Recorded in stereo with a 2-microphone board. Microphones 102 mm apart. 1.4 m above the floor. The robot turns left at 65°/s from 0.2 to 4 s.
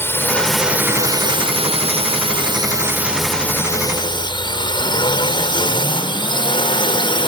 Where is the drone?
20° left (ahead or behind); by 7.3 s 50° left (ahead or behind).